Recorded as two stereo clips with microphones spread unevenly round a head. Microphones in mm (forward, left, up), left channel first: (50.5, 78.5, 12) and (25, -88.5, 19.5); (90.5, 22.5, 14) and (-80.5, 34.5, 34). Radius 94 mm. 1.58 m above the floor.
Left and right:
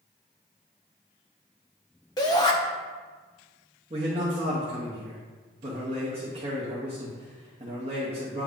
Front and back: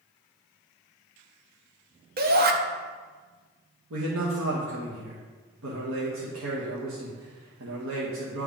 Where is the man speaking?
160° right, 1.0 m.